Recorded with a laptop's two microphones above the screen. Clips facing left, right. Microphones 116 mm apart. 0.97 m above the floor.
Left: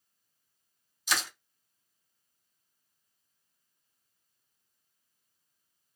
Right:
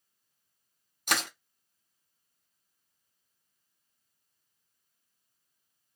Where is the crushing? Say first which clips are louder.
Right 2 dB; 55° right (ahead or behind), 0.6 m.